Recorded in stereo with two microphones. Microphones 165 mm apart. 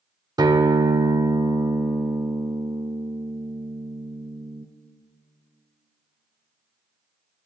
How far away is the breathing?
No breathing in this recording.